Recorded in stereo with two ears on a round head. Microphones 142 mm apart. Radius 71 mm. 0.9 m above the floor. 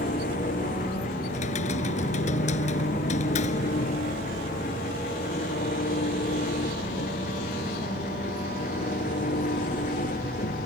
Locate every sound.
0.0 s an engine running: 50° left (ahead or behind)
1.3 s typing on a keyboard: 50° left (ahead or behind)